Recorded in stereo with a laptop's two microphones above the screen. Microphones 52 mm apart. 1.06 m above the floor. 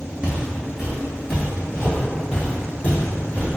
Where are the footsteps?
20° right (ahead or behind), 1.1 m; by 3.5 s 30° left (ahead or behind), 2 m.